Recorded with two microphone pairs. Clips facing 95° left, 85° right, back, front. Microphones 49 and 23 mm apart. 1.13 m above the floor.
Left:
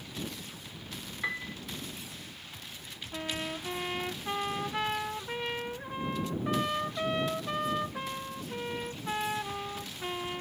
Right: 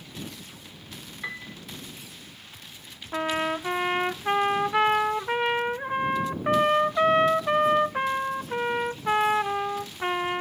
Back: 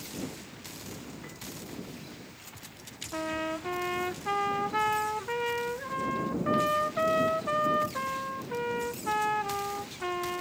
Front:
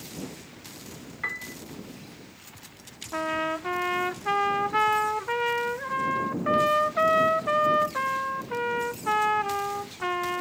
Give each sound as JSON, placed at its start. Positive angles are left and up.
{"t": 1.2, "sound": "a piano", "azimuth_deg": 10}
{"t": 3.1, "sound": "a trumpet", "azimuth_deg": -60}